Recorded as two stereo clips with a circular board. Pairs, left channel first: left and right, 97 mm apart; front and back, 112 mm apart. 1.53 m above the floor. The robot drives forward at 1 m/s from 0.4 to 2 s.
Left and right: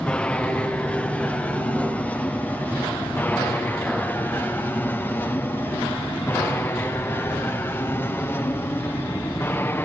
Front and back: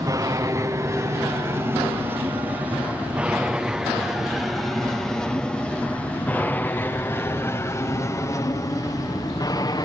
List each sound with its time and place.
0.0 s an aircraft: 160° left; by 9.8 s 30° left